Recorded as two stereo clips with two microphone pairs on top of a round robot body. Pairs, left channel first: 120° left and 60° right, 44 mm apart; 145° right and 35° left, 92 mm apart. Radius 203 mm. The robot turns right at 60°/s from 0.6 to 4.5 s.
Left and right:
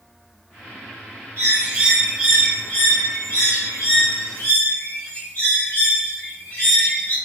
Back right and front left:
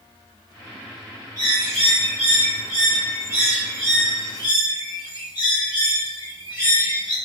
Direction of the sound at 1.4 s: 20° right.